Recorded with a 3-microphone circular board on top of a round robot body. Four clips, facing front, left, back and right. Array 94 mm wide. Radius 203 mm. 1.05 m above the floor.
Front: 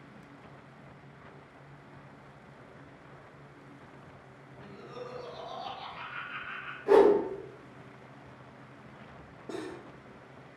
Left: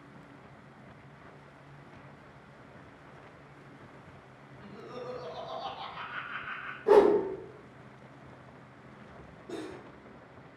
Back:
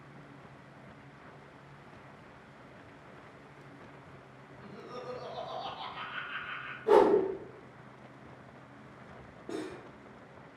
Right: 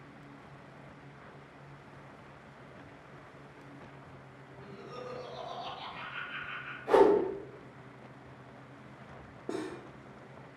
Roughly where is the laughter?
Behind left.